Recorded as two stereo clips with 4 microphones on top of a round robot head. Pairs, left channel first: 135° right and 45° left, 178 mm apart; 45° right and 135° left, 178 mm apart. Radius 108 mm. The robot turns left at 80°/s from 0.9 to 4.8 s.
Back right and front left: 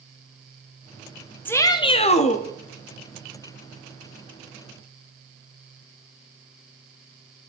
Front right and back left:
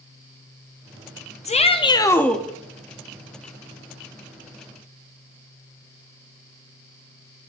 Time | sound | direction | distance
1.4 | a shout | 60° right | 0.7 m